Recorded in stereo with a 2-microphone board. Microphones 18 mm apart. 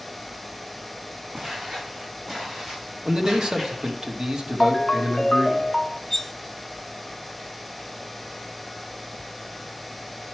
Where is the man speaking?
55° right (ahead or behind), 1.2 m.